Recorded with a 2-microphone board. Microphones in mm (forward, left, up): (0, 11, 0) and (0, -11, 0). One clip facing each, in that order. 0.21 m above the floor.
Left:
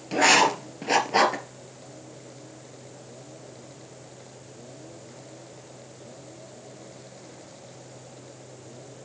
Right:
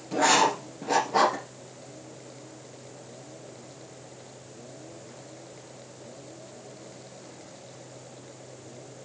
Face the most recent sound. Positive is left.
turn(degrees=75)  # may be behind; listen again after turning